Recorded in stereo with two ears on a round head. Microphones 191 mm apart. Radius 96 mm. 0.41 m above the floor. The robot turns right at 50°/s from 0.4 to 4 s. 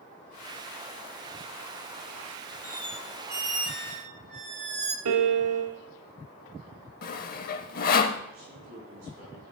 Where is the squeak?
160° left, 0.7 m; by 5.0 s 130° right, 0.7 m.